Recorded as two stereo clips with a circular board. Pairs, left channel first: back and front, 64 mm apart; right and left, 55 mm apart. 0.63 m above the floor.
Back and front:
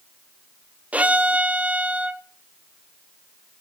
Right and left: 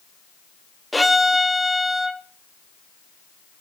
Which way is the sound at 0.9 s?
Straight ahead.